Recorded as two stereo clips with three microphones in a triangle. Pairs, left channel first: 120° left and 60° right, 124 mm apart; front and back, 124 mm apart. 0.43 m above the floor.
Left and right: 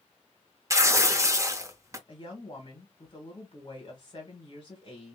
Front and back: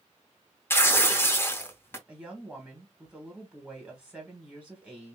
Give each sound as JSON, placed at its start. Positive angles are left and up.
{"t": 0.7, "sound": "tearing paper", "azimuth_deg": -40, "distance_m": 0.8}
{"t": 2.1, "sound": "a woman speaking", "azimuth_deg": 105, "distance_m": 1.3}